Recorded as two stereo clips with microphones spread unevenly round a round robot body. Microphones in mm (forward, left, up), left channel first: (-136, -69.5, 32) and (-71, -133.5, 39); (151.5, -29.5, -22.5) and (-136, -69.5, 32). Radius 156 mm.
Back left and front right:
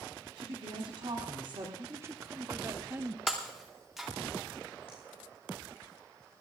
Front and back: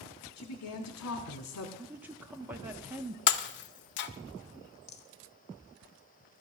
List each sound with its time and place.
0.4 s a woman speaking: 5° right, 1.5 m
1.8 s a woman speaking: 70° right, 1.1 m
3.3 s breaking glass: 45° left, 0.6 m
4.9 s a rattle: 80° left, 0.7 m